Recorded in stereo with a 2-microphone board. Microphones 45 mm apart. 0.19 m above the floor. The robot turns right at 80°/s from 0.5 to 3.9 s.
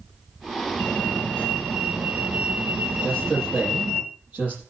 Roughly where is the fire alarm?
Left.